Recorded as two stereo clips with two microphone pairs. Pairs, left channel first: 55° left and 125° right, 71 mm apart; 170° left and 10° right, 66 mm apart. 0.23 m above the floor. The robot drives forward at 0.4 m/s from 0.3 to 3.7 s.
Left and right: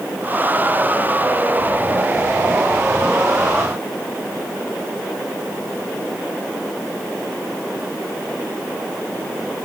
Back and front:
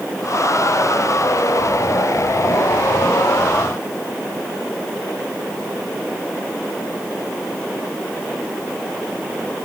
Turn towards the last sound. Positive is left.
No sound to turn to.